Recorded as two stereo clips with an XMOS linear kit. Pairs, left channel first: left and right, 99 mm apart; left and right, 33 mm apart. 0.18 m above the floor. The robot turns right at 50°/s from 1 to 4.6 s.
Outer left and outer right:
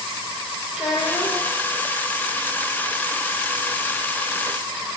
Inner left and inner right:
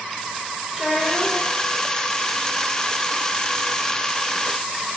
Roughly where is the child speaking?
Centre.